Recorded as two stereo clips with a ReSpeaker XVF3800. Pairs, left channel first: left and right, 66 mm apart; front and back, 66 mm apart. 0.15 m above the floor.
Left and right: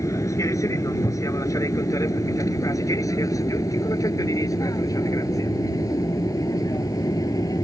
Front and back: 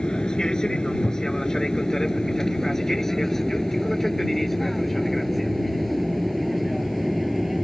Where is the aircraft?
75° left; by 7.7 s 90° left.